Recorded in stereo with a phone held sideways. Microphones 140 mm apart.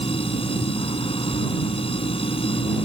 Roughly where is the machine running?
Left.